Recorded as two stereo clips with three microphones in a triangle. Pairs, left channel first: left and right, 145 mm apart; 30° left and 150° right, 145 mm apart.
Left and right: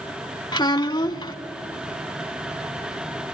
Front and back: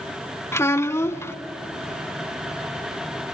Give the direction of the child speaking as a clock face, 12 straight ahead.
9 o'clock.